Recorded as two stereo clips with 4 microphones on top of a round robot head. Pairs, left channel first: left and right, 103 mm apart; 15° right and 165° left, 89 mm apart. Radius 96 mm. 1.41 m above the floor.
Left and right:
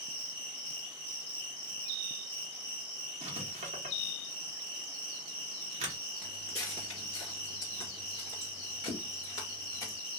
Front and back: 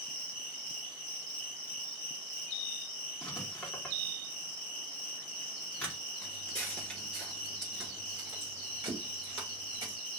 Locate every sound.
0.0 s an insect: 20° right, 0.9 m
3.2 s writing: 90° right, 0.9 m
6.2 s footsteps: 10° left, 1.5 m; by 10.0 s 140° left, 2 m